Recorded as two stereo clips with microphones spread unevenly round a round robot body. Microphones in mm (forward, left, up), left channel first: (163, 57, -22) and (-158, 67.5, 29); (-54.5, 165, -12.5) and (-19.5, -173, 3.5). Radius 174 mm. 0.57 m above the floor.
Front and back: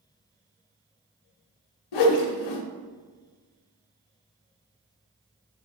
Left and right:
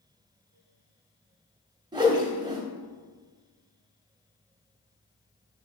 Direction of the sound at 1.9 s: 5° right.